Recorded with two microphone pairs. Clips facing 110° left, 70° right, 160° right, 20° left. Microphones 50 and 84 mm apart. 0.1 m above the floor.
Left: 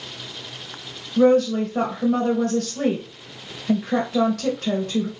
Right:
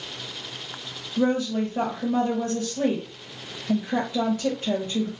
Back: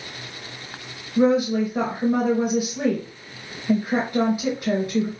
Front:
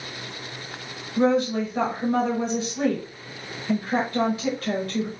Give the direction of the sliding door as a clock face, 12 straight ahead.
No sliding door in this recording.